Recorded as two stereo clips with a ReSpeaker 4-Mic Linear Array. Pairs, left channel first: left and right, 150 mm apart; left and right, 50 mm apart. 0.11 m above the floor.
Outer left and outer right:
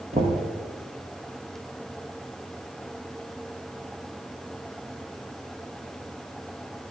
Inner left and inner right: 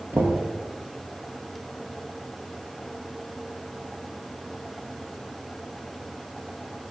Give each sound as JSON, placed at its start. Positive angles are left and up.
{"t": 0.1, "sound": "knocking", "side_deg": -45, "distance_m": 1.7}